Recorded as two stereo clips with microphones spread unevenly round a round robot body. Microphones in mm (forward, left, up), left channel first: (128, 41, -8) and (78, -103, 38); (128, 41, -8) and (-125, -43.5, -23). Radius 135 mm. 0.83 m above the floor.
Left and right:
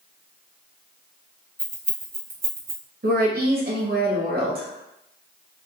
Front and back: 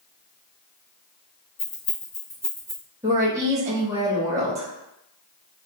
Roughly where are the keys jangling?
Ahead right.